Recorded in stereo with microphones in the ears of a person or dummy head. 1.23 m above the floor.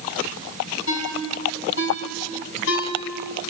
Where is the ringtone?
75° left (ahead or behind), 4.5 m.